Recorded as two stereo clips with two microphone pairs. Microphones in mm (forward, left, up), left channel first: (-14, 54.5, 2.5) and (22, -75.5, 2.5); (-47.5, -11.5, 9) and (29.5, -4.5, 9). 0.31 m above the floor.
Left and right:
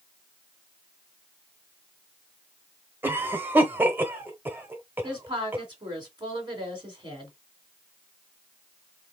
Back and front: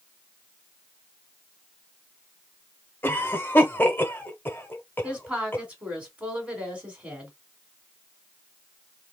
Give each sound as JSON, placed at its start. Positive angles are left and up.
{"t": 3.0, "sound": "a cough", "azimuth_deg": -135, "distance_m": 1.0}
{"t": 5.0, "sound": "a woman speaking", "azimuth_deg": -55, "distance_m": 1.8}